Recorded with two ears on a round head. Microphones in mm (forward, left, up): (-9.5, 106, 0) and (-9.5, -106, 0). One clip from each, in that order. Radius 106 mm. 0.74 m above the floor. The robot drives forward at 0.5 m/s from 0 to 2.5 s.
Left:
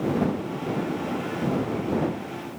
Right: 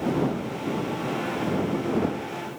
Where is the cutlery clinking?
No cutlery clinking in this recording.